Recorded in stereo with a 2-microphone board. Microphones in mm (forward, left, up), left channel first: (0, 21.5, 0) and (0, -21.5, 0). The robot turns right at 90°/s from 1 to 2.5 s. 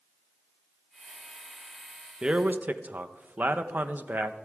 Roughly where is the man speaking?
Centre.